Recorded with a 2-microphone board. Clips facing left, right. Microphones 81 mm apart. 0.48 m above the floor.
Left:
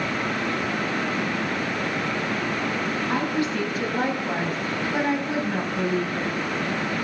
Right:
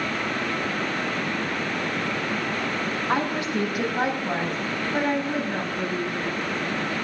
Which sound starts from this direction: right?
A woman speaking, at 3.1 s.